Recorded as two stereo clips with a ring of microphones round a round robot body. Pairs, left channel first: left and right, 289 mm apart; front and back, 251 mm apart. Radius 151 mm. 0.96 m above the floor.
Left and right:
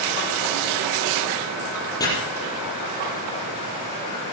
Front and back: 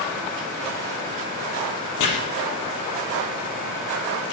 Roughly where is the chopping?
Ahead.